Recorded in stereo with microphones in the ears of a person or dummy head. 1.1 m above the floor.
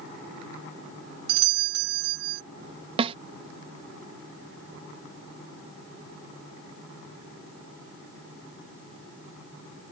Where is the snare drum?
30° right (ahead or behind).